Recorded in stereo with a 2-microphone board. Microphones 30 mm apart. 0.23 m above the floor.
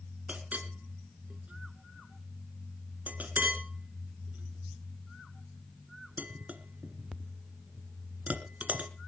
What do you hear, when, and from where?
0.3 s a clink: 60° right (ahead or behind), 1.7 m